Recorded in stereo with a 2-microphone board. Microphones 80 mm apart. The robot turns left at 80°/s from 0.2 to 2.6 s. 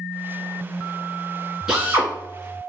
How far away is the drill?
About 1.4 m.